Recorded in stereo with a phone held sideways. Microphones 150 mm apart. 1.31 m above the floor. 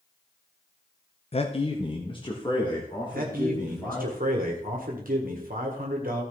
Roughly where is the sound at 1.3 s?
Left.